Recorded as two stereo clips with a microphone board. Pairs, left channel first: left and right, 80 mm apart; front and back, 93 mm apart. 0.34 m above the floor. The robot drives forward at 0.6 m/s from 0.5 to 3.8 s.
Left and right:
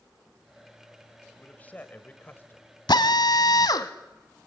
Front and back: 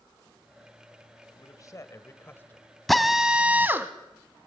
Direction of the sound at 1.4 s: 25° left.